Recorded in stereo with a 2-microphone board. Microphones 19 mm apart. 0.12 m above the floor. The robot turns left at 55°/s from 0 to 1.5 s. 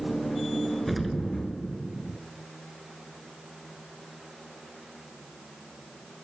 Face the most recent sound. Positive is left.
turn(degrees=-35)